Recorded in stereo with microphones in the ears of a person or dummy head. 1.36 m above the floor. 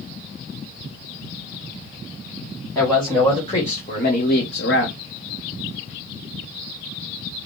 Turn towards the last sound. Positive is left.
turn(degrees=70)  # may be behind; listen again after turning